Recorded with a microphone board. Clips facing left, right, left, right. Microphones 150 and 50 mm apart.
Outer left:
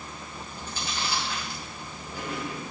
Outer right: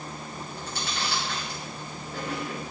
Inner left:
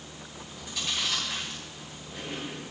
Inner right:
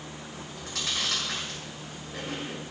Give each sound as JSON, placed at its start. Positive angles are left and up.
{"t": 0.3, "sound": "chewing", "side_deg": -75, "distance_m": 6.5}